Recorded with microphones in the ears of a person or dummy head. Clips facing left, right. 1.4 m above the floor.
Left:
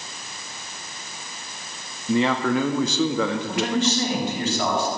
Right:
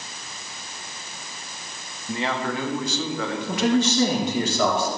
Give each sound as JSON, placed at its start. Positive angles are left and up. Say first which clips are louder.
{"t": 2.1, "sound": "a man speaking", "louder": "left 6 dB", "side_deg": 75, "distance_m": 1.8}
{"t": 3.5, "sound": "a man speaking", "louder": "right 2 dB", "side_deg": -85, "distance_m": 4.0}